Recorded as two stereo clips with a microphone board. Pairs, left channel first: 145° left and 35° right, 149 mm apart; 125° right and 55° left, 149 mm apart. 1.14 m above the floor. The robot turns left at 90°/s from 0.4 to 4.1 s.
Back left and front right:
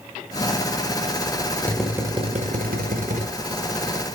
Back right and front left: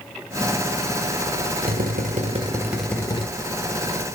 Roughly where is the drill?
Left.